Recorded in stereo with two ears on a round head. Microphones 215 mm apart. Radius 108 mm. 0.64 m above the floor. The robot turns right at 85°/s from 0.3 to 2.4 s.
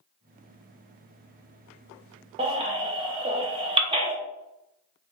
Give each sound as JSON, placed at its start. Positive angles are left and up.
{"t": 2.4, "sound": "a baby crying", "side_deg": -25, "distance_m": 0.7}